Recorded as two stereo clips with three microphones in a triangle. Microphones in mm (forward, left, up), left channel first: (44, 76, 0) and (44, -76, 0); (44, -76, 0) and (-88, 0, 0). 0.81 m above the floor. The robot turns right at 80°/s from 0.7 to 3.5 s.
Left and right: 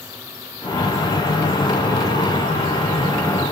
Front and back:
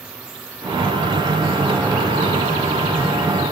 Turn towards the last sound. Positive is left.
No sound to turn to.